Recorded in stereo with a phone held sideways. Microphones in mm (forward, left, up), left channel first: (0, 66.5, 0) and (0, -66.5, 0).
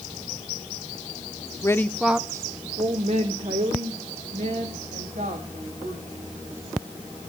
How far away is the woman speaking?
About 0.7 m.